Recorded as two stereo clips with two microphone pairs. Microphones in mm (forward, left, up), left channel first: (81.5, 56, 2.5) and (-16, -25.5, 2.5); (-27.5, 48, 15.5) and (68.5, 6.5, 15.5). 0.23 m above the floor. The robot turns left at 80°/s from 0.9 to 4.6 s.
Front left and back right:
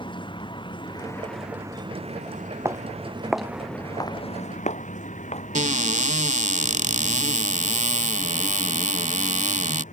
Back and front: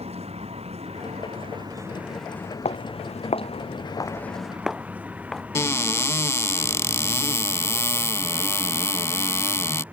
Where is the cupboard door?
140° right.